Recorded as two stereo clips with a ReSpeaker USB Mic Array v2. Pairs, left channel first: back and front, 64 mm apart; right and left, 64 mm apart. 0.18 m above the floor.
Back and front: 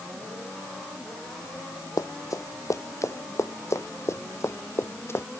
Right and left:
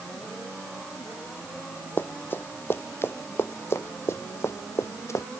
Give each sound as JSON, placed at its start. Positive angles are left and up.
{"t": 2.0, "sound": "running footsteps", "azimuth_deg": -145}